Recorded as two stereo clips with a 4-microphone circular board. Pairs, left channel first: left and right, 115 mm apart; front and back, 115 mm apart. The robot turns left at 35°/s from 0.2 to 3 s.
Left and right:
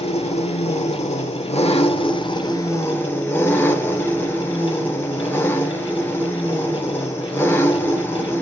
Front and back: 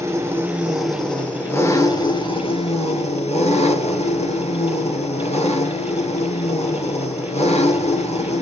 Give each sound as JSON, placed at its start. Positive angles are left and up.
{"t": 0.0, "sound": "an engine running", "azimuth_deg": 115, "distance_m": 2.5}